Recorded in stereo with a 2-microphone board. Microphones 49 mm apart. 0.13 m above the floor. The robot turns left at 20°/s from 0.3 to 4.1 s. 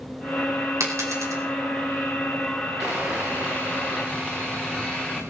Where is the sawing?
35° right (ahead or behind), 3.5 m; by 5.2 s 10° right (ahead or behind), 3.5 m.